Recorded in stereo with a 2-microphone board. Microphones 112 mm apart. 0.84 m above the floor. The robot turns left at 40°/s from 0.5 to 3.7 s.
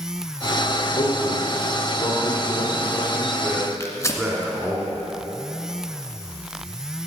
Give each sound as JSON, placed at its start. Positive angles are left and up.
{"t": 1.0, "sound": "a man speaking", "side_deg": 65, "distance_m": 3.0}
{"t": 3.8, "sound": "tearing paper", "side_deg": 25, "distance_m": 1.8}